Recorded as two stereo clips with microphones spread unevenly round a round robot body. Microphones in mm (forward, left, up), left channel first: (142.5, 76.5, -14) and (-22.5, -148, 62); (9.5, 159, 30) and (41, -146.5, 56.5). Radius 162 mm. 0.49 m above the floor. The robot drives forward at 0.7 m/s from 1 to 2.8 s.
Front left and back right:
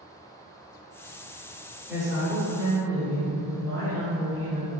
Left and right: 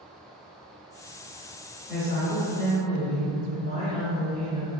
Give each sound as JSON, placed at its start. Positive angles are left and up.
{"t": 1.9, "sound": "a woman speaking", "azimuth_deg": 45, "distance_m": 1.5}